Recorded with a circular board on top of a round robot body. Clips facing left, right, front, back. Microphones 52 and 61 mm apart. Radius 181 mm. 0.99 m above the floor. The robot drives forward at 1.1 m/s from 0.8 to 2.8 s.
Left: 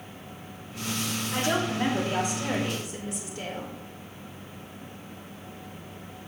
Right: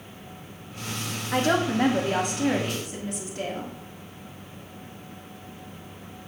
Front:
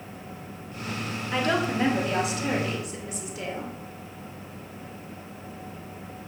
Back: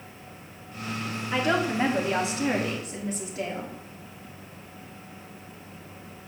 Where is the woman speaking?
100° right, 2.5 m; by 3.8 s 130° right, 3 m.